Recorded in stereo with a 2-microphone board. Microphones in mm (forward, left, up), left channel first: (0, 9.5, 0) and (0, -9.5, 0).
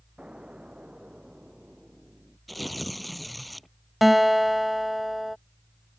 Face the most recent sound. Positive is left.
turn(degrees=-5)  # may be behind; listen again after turning